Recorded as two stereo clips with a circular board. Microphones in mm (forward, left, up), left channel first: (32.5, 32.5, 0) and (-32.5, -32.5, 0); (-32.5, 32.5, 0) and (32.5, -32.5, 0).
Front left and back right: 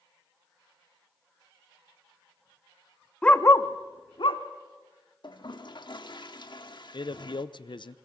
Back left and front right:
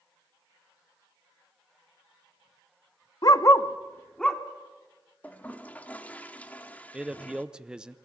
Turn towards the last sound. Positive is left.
turn(degrees=35)